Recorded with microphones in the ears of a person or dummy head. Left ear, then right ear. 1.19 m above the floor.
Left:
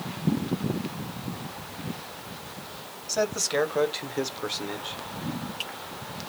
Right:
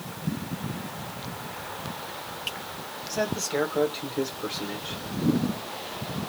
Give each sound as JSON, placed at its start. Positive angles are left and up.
{"t": 3.1, "sound": "a man speaking", "side_deg": 65, "distance_m": 1.4}